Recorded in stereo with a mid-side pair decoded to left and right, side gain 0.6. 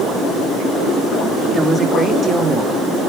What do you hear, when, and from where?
1.5 s a woman speaking: 20° right, 3.5 m; by 3.1 s 25° right, 2.5 m